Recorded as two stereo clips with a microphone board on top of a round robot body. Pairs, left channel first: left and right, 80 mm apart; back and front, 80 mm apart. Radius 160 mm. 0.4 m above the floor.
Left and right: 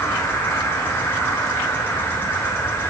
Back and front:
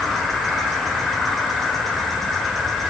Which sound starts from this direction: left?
An insect, at 0.0 s.